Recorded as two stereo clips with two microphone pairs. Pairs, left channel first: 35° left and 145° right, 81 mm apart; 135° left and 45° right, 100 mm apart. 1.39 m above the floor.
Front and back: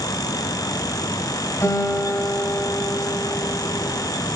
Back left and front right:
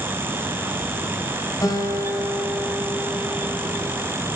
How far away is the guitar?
About 4.5 m.